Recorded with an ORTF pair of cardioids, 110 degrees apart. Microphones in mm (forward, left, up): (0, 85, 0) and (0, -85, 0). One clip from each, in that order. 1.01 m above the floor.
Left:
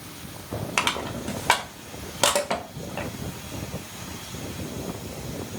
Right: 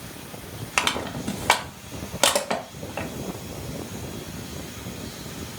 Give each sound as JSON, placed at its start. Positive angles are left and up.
{"t": 0.8, "sound": "crushing", "azimuth_deg": -10, "distance_m": 0.6}